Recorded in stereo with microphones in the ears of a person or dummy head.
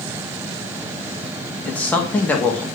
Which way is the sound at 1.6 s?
5° left (ahead or behind).